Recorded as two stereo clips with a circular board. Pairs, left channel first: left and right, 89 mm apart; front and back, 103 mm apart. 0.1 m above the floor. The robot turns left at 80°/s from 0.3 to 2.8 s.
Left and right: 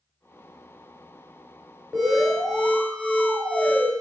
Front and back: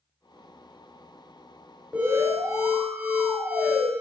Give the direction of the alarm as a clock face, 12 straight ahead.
5 o'clock.